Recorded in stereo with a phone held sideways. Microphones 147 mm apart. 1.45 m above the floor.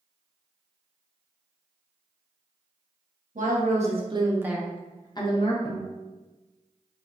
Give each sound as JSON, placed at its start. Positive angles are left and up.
{"t": 3.4, "sound": "a woman speaking", "side_deg": -65, "distance_m": 0.8}
{"t": 5.7, "sound": "a guitar", "side_deg": 40, "distance_m": 0.6}